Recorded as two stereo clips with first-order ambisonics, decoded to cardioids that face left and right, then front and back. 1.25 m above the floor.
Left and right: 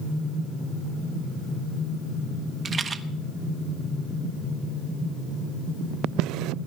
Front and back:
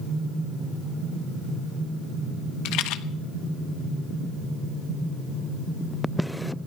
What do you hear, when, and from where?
2.6 s a rattle: 25° right, 0.9 m